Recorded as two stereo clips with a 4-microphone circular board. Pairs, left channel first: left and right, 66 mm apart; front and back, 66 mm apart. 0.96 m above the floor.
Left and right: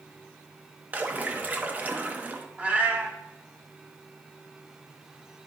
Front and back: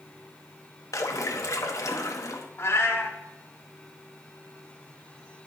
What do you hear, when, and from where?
0.9 s a splash: 30° right, 0.8 m
2.6 s a cat meowing: 30° right, 1.3 m